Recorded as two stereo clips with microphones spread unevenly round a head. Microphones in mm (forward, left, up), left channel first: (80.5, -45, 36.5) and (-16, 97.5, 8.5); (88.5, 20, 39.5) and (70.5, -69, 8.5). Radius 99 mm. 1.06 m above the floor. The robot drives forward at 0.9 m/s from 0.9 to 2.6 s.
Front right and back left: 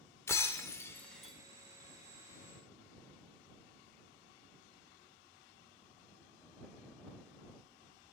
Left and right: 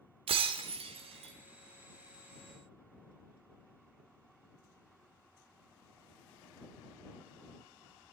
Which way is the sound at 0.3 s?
115° right.